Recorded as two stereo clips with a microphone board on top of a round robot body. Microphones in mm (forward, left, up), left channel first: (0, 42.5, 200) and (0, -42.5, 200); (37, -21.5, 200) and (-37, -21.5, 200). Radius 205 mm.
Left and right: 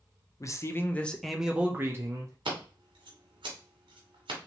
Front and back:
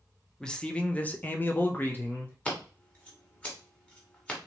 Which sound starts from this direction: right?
Scissors, at 2.5 s.